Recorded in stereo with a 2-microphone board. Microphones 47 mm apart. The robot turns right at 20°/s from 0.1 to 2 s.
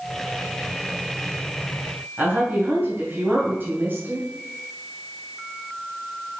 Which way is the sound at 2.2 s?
50° right (ahead or behind).